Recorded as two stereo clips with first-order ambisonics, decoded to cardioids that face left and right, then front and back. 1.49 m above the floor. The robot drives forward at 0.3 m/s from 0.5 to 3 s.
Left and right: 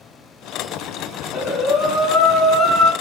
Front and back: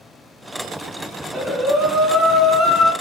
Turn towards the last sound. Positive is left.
turn(degrees=140)